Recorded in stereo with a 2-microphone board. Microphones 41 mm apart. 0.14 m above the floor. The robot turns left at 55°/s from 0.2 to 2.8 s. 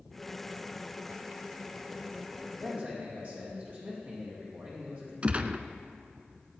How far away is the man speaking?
About 4.5 m.